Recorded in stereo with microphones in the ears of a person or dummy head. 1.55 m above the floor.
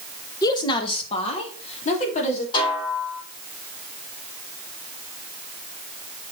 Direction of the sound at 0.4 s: 25° left (ahead or behind).